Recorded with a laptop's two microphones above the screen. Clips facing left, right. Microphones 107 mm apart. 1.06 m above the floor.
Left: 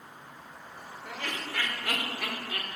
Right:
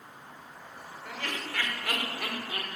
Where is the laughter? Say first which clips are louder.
Even; 20° left (ahead or behind), 2.0 m; by 2.7 s 15° right (ahead or behind), 1.1 m.